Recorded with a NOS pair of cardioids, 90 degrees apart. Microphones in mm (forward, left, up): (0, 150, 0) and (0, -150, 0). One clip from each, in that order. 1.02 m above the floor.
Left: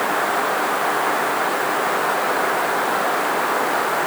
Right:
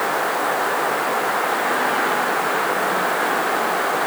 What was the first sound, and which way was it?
Only background noise.